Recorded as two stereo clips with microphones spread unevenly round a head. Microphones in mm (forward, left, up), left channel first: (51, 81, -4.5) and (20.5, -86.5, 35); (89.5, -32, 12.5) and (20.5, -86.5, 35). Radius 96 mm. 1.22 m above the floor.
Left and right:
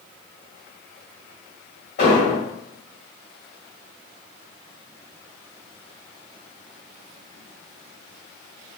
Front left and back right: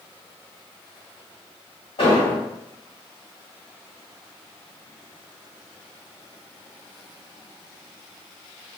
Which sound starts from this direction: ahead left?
An explosion, at 2.0 s.